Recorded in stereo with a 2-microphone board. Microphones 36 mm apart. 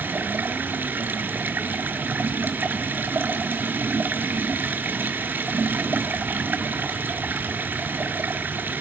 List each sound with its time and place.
0.0 s running water: 60° right (ahead or behind), 1.6 m